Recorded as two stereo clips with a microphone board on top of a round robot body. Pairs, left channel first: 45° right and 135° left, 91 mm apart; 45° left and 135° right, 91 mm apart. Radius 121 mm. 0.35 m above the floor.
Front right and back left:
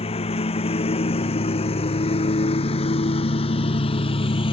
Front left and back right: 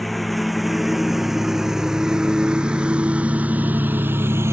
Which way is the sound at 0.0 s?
45° right.